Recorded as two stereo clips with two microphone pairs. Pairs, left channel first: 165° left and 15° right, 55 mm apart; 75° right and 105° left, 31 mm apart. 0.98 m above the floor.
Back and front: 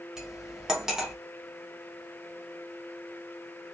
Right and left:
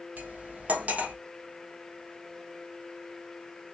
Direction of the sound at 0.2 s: 65° left.